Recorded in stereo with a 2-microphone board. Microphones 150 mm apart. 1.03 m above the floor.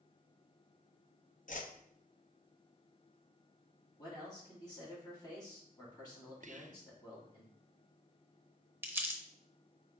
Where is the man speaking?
25° left (ahead or behind), 2.5 m.